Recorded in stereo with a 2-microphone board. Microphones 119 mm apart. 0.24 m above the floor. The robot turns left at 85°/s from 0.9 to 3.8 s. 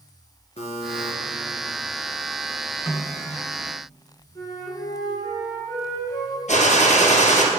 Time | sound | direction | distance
0.6 | a buzzer | 65° left (ahead or behind) | 2.5 m
2.9 | a snare drum | 20° left (ahead or behind) | 1.5 m
4.3 | a flute | 30° left (ahead or behind) | 3 m
6.5 | a gunshot | 80° left | 2.0 m